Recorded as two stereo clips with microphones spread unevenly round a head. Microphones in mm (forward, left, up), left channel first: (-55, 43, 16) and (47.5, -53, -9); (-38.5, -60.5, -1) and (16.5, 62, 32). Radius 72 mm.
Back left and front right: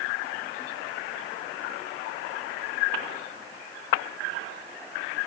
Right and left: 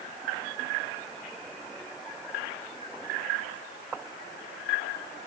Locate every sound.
Only background noise.